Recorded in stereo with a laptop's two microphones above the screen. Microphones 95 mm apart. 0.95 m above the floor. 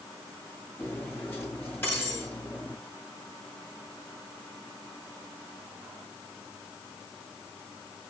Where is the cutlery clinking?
20° left (ahead or behind), 7 m.